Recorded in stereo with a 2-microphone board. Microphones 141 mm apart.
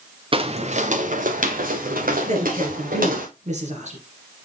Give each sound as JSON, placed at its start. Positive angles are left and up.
{"t": 0.3, "sound": "footsteps", "side_deg": -40, "distance_m": 1.1}
{"t": 2.3, "sound": "a woman speaking", "side_deg": -55, "distance_m": 3.0}